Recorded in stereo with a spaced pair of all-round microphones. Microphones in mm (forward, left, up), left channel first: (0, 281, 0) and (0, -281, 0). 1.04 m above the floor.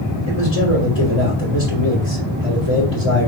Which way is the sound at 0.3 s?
60° left (ahead or behind).